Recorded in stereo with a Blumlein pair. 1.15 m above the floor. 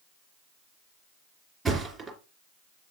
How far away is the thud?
About 3 m.